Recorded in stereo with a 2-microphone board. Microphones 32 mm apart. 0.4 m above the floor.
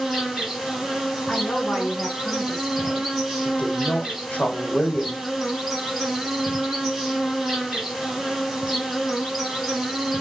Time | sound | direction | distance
0.0 | an insect | 5° right (ahead or behind) | 1.9 m
1.3 | a woman speaking | 30° left (ahead or behind) | 3 m
3.5 | a woman speaking | 50° left (ahead or behind) | 1.4 m